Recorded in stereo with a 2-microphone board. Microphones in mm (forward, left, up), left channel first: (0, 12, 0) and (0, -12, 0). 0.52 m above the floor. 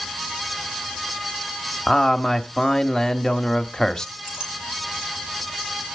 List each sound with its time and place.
1.9 s a man speaking: 15° left (ahead or behind), 1.0 m
4.2 s a clink: 25° right (ahead or behind), 9.5 m